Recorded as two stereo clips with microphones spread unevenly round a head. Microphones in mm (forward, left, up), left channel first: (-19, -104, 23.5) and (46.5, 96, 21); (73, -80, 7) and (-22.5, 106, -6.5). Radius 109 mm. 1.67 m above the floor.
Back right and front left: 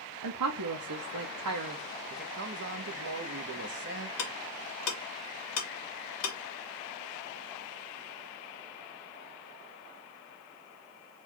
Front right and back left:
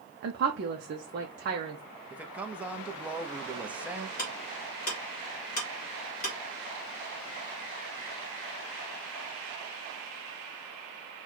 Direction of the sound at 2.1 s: 35° left.